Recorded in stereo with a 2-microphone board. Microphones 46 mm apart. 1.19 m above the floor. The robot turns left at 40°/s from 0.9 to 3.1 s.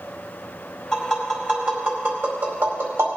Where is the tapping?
Centre (ahead or behind), 4.5 m; by 3.1 s 85° right, 4.5 m.